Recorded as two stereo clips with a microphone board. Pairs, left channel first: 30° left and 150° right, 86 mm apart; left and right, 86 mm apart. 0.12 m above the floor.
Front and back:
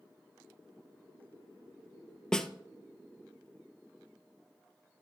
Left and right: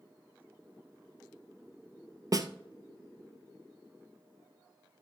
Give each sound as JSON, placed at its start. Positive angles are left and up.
{"t": 2.3, "sound": "a snare drum", "azimuth_deg": -50, "distance_m": 0.8}